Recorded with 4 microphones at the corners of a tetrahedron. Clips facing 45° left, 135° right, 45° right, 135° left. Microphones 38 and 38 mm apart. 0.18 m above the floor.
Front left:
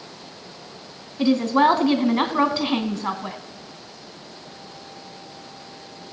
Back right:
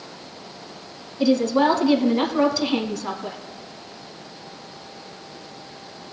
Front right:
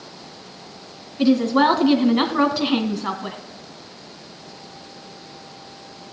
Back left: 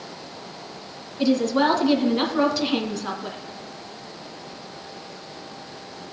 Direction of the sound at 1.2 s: 10° left.